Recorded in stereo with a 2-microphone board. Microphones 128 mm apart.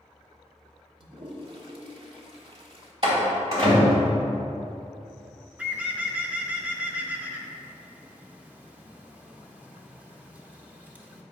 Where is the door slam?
50° right (ahead or behind), 2 m.